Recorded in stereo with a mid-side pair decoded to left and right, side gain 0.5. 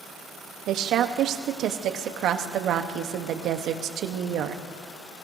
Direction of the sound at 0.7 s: 65° right.